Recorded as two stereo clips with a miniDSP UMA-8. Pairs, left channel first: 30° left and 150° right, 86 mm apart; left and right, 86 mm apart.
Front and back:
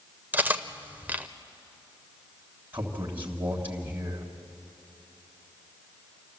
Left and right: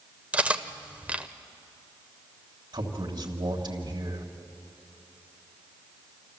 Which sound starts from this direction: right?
A man speaking, at 2.7 s.